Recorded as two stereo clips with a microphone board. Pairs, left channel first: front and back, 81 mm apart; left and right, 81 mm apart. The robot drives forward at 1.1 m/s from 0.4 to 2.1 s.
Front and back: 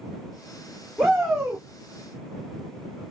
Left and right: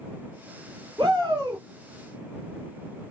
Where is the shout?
110° right, 2 m; by 1.6 s 130° right, 2.5 m.